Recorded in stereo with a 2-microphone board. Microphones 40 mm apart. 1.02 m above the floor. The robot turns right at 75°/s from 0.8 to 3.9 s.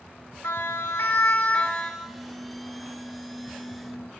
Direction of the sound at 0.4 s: 80° left.